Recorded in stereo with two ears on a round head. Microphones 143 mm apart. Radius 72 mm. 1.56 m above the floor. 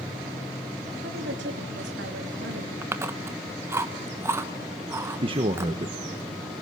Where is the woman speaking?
80° right, 3.5 m.